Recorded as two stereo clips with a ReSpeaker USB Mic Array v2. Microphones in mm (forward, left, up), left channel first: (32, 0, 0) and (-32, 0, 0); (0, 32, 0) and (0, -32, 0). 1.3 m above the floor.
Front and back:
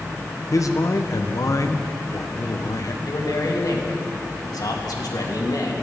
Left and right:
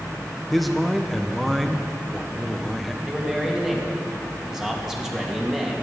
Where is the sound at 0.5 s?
Straight ahead, 1.0 m.